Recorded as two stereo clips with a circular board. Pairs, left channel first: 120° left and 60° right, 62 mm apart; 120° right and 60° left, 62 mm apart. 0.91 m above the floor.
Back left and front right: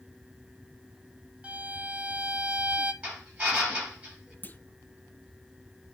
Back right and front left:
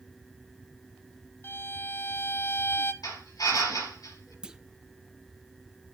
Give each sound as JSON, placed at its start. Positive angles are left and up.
{"t": 1.4, "sound": "a violin", "azimuth_deg": -115, "distance_m": 0.9}
{"t": 3.0, "sound": "a drill", "azimuth_deg": -130, "distance_m": 7.0}
{"t": 4.4, "sound": "a clunk", "azimuth_deg": 125, "distance_m": 0.5}